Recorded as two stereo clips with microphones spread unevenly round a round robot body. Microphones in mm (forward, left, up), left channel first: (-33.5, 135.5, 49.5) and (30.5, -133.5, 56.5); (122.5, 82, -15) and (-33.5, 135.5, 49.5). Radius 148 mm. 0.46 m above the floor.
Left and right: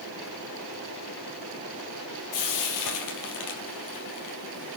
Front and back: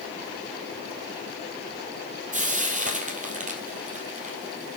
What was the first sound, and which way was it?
Frying, 120° left.